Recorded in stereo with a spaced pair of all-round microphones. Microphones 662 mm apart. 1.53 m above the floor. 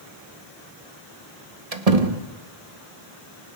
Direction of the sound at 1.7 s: 60° right (ahead or behind).